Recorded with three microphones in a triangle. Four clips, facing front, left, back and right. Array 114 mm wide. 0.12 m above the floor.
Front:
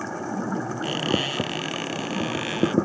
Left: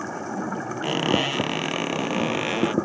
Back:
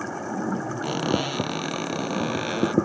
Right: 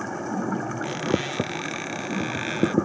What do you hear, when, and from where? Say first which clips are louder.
0.8 s a squeak: left 6 dB, back 2 dB; 110° left